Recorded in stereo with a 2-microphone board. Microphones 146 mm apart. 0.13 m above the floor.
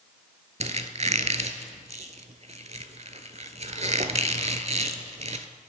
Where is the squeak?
50° right (ahead or behind), 0.6 m.